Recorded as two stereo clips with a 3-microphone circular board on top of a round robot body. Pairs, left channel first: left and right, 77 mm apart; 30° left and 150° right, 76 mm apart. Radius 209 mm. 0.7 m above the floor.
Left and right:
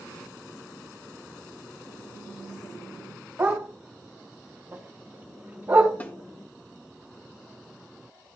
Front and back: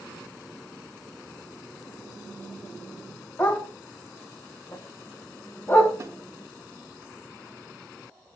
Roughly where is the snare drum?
Behind left.